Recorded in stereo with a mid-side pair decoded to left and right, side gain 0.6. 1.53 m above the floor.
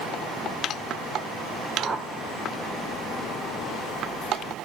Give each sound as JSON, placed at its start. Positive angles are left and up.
{"t": 1.8, "sound": "a whoosh", "azimuth_deg": -30, "distance_m": 3.5}